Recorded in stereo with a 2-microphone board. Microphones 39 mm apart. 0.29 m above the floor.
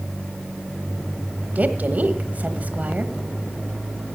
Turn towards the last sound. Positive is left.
turn(degrees=-40)  # may be behind; listen again after turning